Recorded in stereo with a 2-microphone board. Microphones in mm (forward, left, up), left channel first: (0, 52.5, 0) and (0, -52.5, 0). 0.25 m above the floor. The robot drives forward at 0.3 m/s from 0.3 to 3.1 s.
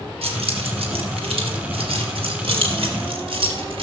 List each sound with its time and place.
0.2 s keys jangling: 70° right (ahead or behind), 3.5 m; by 3.8 s 60° right (ahead or behind), 4 m